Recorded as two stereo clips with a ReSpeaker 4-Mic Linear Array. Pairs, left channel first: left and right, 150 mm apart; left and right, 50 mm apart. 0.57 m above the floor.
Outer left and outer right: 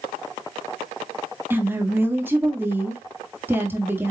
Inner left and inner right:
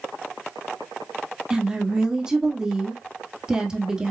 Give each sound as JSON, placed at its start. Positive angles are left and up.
{"t": 1.5, "sound": "a woman speaking", "side_deg": -15, "distance_m": 1.3}